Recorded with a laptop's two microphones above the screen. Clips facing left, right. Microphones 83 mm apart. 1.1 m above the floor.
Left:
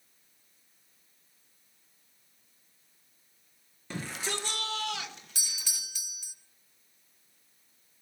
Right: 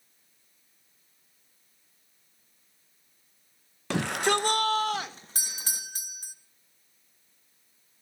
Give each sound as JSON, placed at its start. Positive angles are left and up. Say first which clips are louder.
{"t": 3.9, "sound": "a shout", "louder": "right 11 dB", "side_deg": -70, "distance_m": 0.5}
{"t": 5.3, "sound": "a doorbell", "louder": "right 5 dB", "side_deg": -40, "distance_m": 0.9}